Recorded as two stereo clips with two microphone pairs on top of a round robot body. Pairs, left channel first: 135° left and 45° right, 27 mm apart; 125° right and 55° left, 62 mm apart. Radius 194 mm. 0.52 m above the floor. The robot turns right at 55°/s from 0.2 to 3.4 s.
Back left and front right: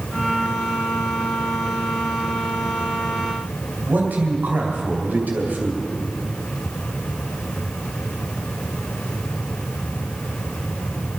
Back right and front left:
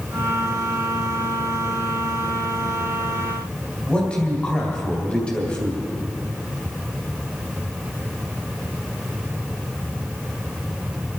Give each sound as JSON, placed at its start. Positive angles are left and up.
{"t": 3.9, "sound": "a man speaking", "azimuth_deg": -50, "distance_m": 3.0}